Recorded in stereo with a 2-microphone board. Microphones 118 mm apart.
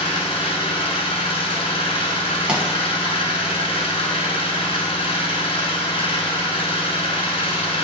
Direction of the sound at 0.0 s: 55° left (ahead or behind).